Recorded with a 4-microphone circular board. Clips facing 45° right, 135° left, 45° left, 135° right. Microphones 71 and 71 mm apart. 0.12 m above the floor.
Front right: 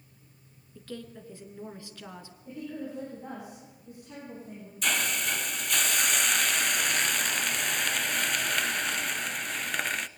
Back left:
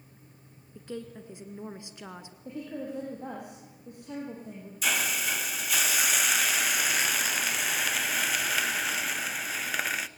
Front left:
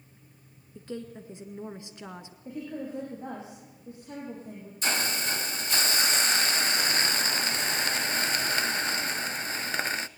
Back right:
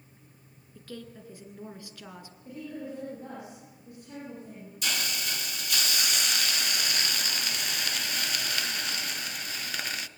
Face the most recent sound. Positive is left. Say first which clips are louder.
# even, front left 4 dB
turn(degrees=50)